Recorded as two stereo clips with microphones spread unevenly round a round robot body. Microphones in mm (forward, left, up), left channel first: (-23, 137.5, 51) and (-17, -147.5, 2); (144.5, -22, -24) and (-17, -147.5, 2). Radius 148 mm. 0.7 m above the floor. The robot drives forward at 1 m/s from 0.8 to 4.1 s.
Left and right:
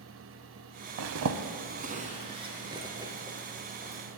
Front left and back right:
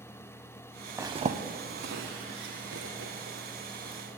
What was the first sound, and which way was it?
A zipper, 80° right.